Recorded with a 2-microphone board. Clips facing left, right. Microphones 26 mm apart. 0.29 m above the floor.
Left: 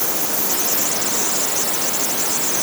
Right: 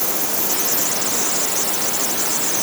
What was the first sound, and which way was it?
Only background noise.